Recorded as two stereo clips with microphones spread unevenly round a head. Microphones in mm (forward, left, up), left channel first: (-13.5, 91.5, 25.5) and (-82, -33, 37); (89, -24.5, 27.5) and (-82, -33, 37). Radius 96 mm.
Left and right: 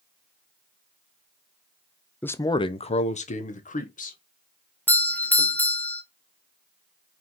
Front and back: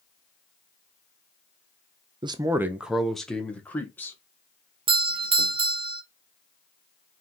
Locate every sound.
2.2 s a man speaking: 130° left, 0.6 m; by 4.2 s 80° left, 1.8 m
4.9 s a doorbell: 130° left, 1.2 m